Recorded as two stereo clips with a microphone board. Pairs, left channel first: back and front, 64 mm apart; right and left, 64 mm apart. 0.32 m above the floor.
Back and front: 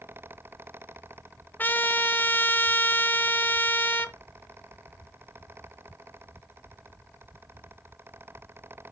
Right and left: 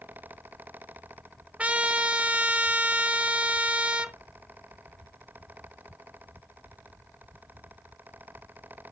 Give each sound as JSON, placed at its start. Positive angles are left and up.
{"t": 1.6, "sound": "a trumpet", "azimuth_deg": 145, "distance_m": 0.8}